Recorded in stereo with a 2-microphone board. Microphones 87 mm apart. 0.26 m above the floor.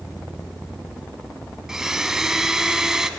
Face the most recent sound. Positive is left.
turn(degrees=-5)  # may be behind; listen again after turning